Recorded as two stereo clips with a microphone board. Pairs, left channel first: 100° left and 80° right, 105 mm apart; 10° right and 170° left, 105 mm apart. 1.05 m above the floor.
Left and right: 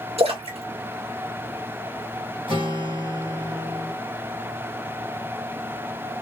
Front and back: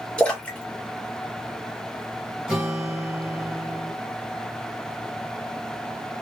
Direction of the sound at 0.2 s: 90° right.